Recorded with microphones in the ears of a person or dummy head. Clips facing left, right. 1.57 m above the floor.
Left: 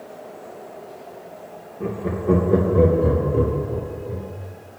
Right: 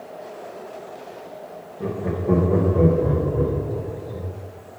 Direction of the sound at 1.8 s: 10° right (ahead or behind).